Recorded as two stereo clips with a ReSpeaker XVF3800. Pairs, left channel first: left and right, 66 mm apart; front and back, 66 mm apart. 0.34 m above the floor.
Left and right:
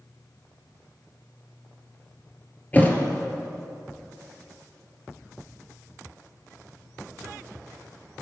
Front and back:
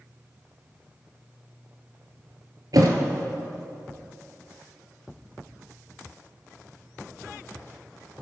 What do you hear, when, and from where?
2.7 s a thud: 155° left, 1.8 m